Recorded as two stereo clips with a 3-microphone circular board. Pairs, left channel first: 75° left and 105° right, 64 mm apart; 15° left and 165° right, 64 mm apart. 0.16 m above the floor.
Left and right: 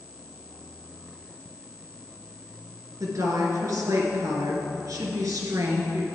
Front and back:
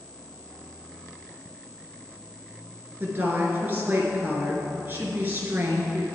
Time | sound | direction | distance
3.0 | a woman speaking | 110° right | 2.0 m